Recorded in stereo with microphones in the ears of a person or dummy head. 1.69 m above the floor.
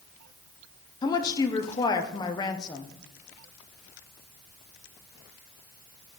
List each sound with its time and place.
1.0 s a woman speaking: 20° left (ahead or behind), 0.5 m